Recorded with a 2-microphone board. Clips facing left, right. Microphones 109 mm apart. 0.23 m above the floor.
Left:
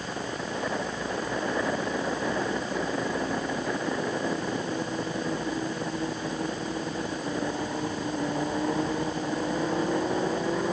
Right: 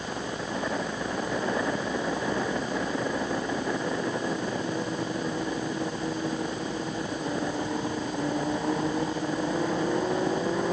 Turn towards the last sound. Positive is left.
No sound to turn to.